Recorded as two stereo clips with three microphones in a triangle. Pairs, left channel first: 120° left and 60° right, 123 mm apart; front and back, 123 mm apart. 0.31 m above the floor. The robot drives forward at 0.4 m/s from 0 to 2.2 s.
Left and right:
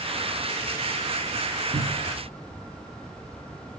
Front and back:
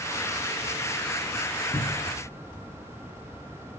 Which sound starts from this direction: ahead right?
A cupboard door, at 1.7 s.